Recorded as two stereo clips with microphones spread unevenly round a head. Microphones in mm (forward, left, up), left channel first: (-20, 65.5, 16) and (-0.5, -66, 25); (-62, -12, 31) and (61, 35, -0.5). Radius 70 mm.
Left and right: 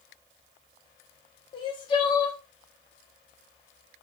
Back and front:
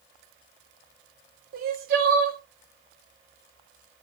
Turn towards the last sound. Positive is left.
turn(degrees=40)